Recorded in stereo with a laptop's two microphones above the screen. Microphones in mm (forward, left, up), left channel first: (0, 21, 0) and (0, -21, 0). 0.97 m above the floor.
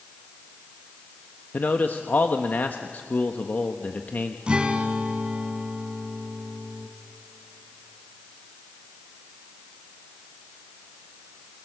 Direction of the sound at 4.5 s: 25° right (ahead or behind).